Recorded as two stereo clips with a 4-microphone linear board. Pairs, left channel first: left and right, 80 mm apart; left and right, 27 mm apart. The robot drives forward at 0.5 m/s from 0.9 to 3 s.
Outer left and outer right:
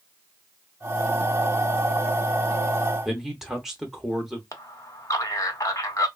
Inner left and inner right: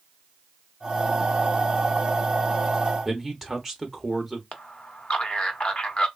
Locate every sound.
3.0 s a man speaking: 5° right (ahead or behind), 0.7 m
4.5 s a man speaking: 45° left (ahead or behind), 0.8 m